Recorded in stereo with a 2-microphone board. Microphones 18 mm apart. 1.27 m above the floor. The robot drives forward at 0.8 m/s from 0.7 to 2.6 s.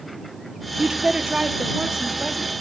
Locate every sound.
0.8 s a woman speaking: 70° right (ahead or behind), 0.8 m; by 2.5 s 30° right (ahead or behind), 1.6 m